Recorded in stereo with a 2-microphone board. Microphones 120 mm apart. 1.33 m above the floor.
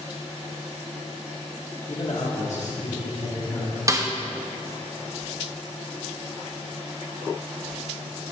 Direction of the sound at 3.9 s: 25° right (ahead or behind).